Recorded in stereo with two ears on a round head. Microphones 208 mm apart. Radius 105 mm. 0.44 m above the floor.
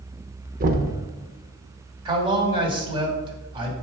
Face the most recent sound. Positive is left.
turn(degrees=-25)  # may be behind; listen again after turning